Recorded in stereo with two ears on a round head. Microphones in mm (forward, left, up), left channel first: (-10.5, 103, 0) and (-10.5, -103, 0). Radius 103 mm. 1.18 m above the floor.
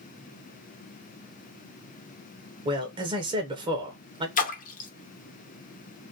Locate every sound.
2.6 s a man speaking: 20° right (ahead or behind), 0.7 m
4.4 s a splash: 35° left (ahead or behind), 0.7 m